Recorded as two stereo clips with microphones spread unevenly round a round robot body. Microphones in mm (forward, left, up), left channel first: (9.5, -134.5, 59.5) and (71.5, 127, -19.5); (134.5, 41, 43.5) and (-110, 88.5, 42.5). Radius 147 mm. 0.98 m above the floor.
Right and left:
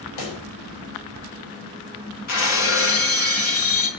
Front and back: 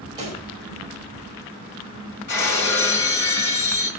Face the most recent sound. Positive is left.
turn(degrees=-65)